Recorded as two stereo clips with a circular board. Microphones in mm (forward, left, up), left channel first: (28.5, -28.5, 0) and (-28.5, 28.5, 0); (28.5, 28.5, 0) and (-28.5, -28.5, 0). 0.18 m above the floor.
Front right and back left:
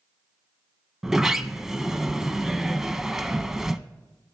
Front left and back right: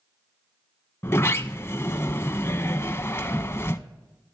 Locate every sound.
1.0 s a sliding door: 55° left, 0.5 m